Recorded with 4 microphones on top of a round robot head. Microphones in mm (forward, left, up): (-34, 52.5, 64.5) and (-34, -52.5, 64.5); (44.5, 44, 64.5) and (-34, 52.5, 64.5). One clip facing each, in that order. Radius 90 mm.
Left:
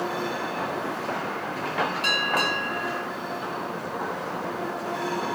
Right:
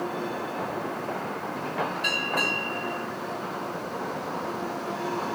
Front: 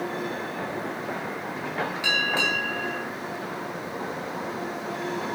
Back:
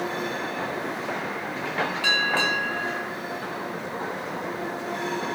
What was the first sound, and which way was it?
A bell, 65° left.